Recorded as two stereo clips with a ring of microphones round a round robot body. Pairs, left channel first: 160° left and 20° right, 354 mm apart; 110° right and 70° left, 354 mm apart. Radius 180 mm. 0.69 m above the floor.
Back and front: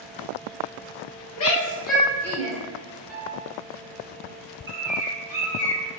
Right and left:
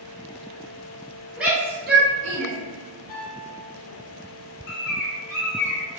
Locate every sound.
1.4 s a shout: 155° left, 1.0 m; by 2.5 s 60° left, 1.2 m
3.1 s a piano: 75° right, 1.9 m
4.7 s a bird: 105° right, 1.1 m